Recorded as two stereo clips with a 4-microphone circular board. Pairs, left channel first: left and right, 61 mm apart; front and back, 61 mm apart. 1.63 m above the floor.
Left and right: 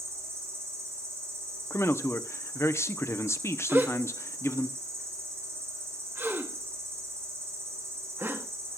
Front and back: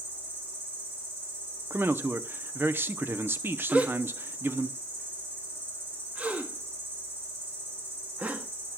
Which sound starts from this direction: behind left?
A man speaking, at 1.7 s.